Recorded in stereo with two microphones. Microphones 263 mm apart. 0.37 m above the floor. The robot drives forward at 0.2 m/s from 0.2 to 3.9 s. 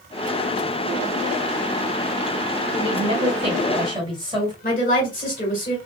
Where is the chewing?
No chewing in this recording.